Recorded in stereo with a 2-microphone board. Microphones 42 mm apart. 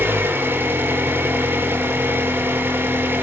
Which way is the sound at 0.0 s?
60° right (ahead or behind).